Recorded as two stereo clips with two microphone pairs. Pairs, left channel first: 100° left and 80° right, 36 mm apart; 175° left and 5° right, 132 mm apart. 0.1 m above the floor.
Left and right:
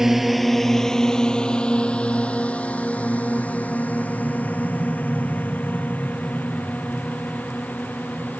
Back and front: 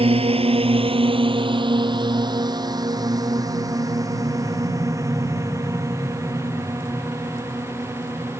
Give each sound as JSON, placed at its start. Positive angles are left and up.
{"t": 0.0, "sound": "a drone", "azimuth_deg": -5}